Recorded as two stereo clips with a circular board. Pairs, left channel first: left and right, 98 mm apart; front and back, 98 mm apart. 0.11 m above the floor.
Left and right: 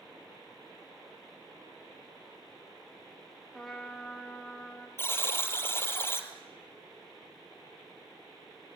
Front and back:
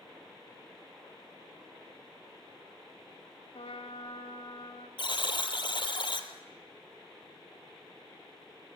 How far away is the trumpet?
About 3.5 m.